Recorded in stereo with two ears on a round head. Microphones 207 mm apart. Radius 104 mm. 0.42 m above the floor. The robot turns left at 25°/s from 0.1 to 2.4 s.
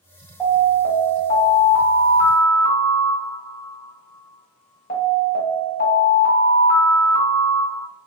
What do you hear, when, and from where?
0.4 s an alarm: 175° right, 1.5 m; by 7.8 s 135° left, 1.5 m